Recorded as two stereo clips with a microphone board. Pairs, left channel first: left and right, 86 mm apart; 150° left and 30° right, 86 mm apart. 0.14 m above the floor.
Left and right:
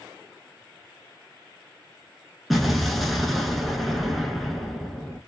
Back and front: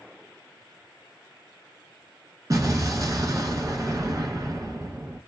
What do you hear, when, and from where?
2.5 s an explosion: straight ahead, 0.6 m